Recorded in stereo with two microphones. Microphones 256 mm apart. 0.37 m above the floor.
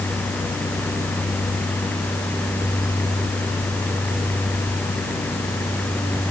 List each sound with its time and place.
Only background noise.